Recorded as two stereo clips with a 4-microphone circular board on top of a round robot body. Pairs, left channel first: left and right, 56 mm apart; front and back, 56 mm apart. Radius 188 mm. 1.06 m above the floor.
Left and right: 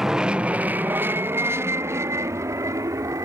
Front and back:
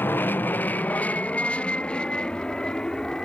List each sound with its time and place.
0.0 s an aircraft: 15° right; by 3.2 s 75° right